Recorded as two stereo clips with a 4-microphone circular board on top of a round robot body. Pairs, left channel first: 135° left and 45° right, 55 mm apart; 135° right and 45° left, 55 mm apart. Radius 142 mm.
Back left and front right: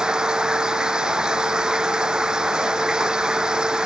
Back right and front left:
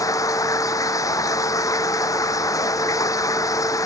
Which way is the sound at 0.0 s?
125° right.